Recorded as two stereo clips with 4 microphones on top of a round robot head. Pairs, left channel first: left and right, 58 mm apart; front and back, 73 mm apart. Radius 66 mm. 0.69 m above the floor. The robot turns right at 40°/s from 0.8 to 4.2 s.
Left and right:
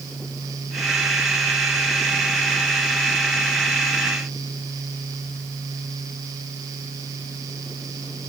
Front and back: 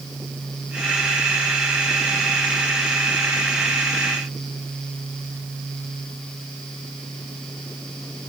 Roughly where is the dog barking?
I don't hear a dog barking.